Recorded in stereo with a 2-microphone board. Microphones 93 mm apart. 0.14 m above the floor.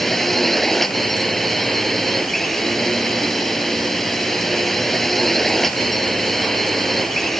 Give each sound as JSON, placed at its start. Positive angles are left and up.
{"t": 0.0, "sound": "a drone", "side_deg": 5}